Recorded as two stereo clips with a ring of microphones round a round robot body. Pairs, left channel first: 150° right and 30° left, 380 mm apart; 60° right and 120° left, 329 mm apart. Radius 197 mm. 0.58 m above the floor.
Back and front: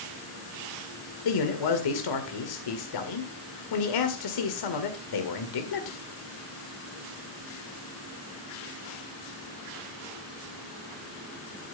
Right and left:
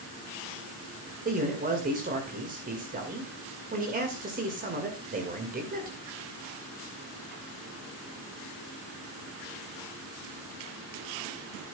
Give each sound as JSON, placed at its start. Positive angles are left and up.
{"t": 1.2, "sound": "a man speaking", "azimuth_deg": -175, "distance_m": 2.0}